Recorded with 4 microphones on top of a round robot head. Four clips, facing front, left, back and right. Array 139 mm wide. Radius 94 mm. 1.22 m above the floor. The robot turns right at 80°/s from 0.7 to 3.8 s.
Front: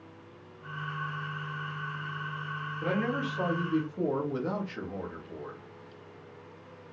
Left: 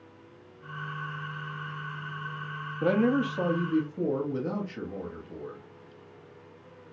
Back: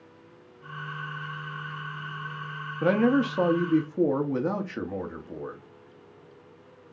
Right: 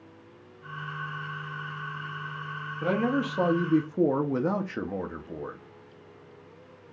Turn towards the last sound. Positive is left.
turn(degrees=-125)